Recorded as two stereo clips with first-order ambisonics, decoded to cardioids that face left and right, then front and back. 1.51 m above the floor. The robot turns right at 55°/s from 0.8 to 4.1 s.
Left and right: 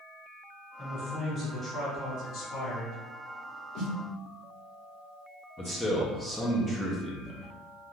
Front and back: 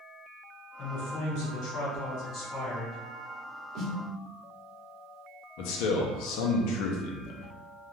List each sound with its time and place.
0.8 s a man speaking: 35° right, 1.2 m; by 3.0 s 85° left, 1.2 m
3.8 s a snare drum: 140° left, 0.8 m; by 3.9 s 150° left, 0.8 m
5.6 s a man speaking: 5° left, 0.6 m